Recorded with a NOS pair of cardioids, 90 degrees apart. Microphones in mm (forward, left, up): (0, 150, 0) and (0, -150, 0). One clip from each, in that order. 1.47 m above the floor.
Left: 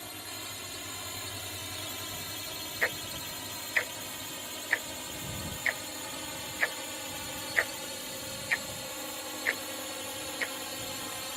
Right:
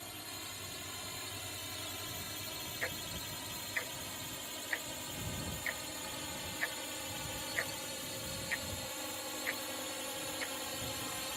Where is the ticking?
50° left.